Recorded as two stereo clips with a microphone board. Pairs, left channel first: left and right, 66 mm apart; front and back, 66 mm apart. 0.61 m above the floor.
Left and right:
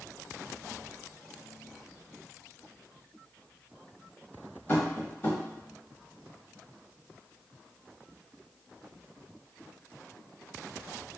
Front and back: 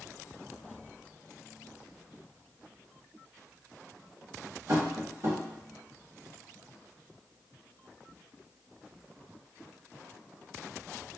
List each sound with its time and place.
4.7 s tapping: 145° left, 1.1 m